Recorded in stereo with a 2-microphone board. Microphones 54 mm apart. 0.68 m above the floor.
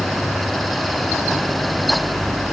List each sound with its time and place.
Only background noise.